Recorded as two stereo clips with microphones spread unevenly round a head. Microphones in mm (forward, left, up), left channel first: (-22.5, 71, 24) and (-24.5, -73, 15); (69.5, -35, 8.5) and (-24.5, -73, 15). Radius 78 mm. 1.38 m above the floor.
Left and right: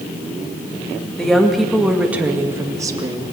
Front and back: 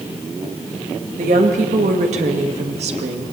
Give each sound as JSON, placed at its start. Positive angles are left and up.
{"t": 1.2, "sound": "a woman speaking", "azimuth_deg": 175, "distance_m": 2.0}